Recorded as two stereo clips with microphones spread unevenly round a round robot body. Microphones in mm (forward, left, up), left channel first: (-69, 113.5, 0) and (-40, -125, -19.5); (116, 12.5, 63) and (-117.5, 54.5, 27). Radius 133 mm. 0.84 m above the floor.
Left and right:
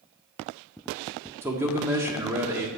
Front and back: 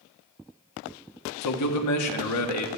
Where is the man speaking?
5° right, 1.5 m.